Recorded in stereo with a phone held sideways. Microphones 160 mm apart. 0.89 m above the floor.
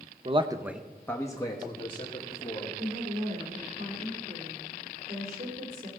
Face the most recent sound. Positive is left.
turn(degrees=-65)  # may be behind; listen again after turning